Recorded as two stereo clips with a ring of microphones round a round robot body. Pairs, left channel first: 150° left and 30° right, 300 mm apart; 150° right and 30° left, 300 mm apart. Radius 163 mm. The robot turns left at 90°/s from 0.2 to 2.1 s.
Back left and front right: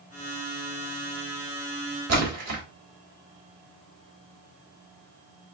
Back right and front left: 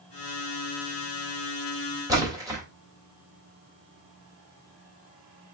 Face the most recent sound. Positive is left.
turn(degrees=-45)